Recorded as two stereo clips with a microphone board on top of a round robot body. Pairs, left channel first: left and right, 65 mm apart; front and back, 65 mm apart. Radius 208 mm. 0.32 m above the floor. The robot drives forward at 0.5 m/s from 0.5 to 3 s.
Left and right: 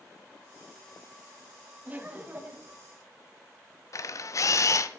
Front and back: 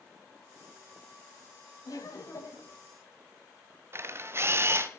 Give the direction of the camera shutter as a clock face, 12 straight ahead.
8 o'clock.